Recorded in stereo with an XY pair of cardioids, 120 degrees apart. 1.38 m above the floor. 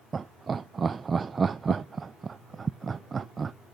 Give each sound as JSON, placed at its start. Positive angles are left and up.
{"t": 0.1, "sound": "laughter", "azimuth_deg": -30, "distance_m": 0.5}